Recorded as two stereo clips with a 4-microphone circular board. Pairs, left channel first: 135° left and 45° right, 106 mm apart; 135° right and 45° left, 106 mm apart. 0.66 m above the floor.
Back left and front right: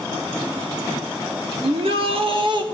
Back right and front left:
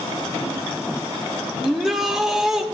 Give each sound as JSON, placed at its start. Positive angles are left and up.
{"t": 1.6, "sound": "a shout", "azimuth_deg": -40, "distance_m": 1.4}